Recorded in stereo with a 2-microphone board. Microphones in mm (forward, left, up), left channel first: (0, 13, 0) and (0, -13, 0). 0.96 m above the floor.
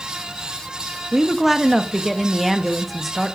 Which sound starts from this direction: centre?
A woman speaking, at 1.1 s.